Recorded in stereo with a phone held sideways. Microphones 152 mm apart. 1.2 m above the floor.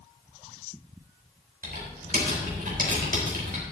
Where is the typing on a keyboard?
70° right (ahead or behind), 5 m.